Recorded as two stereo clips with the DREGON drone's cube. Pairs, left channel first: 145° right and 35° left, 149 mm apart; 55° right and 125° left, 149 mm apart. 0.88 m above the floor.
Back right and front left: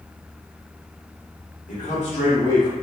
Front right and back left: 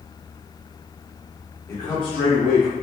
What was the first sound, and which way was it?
A man speaking, 125° right.